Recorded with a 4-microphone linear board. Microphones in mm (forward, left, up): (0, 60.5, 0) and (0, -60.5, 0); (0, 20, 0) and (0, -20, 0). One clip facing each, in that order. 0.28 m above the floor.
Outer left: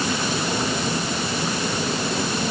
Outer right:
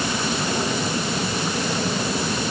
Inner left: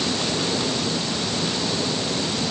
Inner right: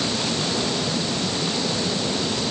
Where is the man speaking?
No man speaking in this recording.